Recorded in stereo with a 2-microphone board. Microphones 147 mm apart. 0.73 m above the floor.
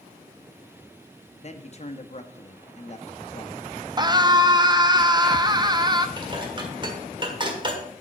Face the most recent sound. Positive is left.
turn(degrees=-30)  # may be behind; listen again after turning